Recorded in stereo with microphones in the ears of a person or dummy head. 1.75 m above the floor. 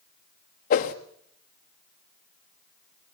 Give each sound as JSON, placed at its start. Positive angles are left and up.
{"t": 0.7, "sound": "a whoosh", "side_deg": 40, "distance_m": 1.3}